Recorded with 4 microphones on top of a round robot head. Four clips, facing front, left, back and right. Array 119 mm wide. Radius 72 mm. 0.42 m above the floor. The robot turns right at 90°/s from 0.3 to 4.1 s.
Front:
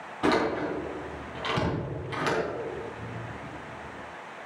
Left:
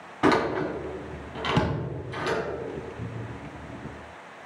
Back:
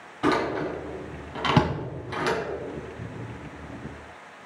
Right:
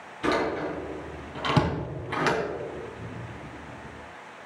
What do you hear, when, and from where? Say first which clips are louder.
0.2 s a door slam: left 4 dB, back 1 dB; 85° left, 3 m; by 2.4 s 90° right, 3 m
3.0 s a cupboard door: left 2 dB, even; 130° left, 1.5 m; by 3.5 s straight behind, 1.5 m